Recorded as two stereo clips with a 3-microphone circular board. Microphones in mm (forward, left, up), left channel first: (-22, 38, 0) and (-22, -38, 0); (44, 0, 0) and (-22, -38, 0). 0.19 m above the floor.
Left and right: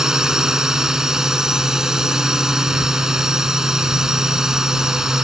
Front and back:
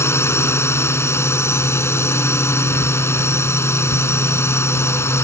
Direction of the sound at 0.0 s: 10° right.